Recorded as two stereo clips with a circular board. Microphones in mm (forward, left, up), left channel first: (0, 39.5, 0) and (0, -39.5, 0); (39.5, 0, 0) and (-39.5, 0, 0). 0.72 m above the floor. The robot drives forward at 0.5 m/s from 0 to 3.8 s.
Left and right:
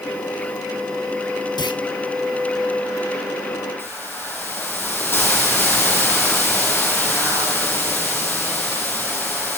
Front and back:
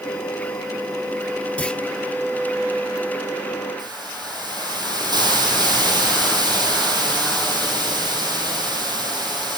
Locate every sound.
1.6 s a clunk: 70° left, 0.5 m; by 1.8 s 85° left, 0.5 m
3.8 s a hiss: 150° left, 4.5 m